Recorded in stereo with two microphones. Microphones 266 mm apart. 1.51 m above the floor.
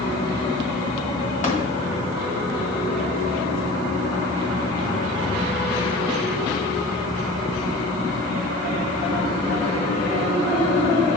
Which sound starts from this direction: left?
Tapping, at 1.4 s.